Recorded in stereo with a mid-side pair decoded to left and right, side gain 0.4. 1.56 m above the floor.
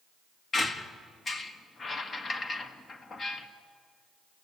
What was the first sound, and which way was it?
A squeak, 45° left.